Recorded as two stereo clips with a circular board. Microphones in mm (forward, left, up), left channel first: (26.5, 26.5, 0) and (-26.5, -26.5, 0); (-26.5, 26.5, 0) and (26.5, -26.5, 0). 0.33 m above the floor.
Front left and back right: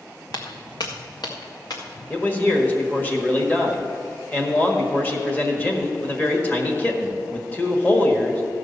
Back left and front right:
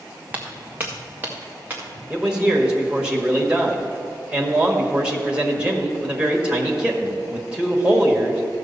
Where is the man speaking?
10° left, 1.5 m.